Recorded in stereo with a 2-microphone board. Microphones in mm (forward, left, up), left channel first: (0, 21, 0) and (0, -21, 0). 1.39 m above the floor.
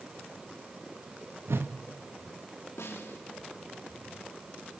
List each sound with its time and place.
1.5 s a whoosh: 75° right (ahead or behind), 1.6 m
2.8 s a snare drum: 85° left, 3.5 m